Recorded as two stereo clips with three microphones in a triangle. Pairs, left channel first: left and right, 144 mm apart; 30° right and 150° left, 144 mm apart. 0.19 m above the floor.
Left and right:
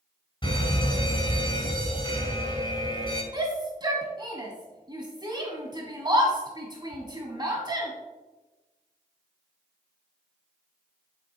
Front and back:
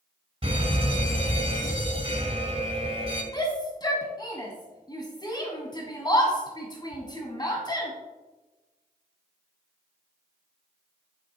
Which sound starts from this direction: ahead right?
A shout, at 3.3 s.